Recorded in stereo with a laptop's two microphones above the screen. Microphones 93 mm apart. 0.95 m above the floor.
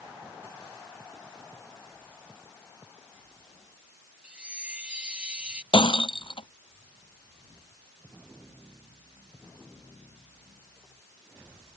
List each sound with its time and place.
4.2 s a chime: 10° right (ahead or behind)
5.7 s breaking glass: 65° left (ahead or behind)